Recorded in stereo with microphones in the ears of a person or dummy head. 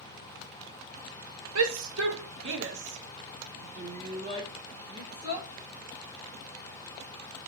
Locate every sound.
1.6 s a shout: 85° right, 3 m; by 5.5 s 20° right (ahead or behind), 3 m